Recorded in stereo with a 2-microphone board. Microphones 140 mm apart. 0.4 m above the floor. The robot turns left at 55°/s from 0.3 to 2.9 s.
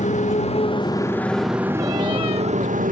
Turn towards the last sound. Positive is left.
turn(degrees=-80)